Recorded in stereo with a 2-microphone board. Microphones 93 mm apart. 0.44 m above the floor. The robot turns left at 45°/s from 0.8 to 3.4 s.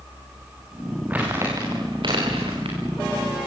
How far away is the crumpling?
About 9.5 m.